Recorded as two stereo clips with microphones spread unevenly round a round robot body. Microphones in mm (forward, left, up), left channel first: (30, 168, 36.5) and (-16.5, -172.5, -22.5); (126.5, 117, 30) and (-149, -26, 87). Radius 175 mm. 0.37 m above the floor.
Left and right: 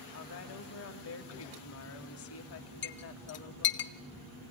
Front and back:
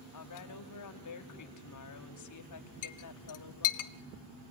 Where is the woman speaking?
30° left, 2.5 m.